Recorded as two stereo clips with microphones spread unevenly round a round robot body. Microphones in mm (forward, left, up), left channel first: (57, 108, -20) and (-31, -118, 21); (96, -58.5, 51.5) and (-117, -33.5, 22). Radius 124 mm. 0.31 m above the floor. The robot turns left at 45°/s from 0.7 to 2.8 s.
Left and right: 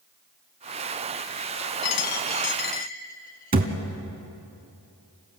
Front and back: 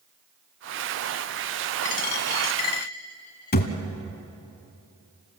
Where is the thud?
55° right, 1.7 m.